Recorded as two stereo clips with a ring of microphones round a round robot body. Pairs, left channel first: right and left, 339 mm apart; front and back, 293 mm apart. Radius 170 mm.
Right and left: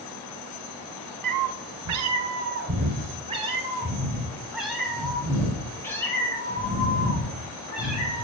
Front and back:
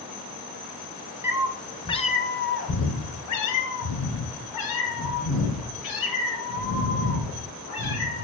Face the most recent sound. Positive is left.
turn(degrees=-10)